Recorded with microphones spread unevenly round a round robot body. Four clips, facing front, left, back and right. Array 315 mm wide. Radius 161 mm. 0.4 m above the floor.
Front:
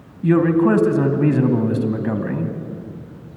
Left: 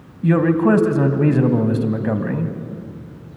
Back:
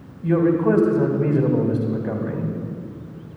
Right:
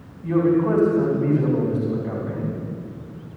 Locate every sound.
0.2 s a man speaking: 90° left, 3 m